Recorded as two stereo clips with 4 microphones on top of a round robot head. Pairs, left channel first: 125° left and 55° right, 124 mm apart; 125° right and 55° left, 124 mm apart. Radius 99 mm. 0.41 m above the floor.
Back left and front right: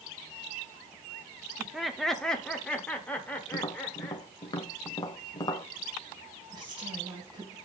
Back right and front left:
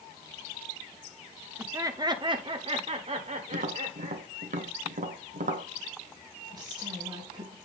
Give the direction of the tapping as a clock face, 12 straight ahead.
10 o'clock.